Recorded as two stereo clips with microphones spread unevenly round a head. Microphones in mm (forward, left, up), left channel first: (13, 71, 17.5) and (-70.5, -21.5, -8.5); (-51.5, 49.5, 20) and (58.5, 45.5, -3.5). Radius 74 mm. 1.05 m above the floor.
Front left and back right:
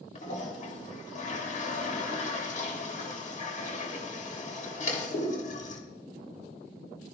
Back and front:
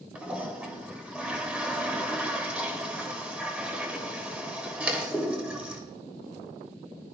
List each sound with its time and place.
0.1 s a toilet flushing: 75° left, 3.5 m